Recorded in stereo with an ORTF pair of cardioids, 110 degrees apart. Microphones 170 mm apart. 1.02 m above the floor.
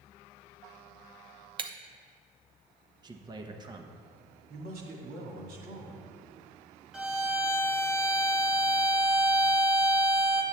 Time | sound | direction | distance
1.6 | breaking glass | 30° right | 0.6 m
3.0 | a man speaking | 25° right | 0.8 m
4.5 | a man speaking | 65° right | 2 m
6.9 | a violin | 5° right | 0.8 m